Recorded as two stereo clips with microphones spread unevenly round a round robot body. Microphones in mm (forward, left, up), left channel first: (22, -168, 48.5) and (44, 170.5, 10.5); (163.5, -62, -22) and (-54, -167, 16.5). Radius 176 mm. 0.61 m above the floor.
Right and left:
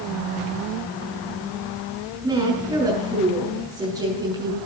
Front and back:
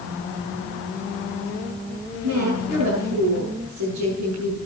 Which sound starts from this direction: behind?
A woman speaking, at 2.2 s.